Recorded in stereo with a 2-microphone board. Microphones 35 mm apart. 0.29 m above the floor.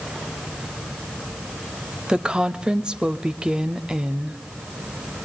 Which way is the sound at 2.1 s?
25° right (ahead or behind).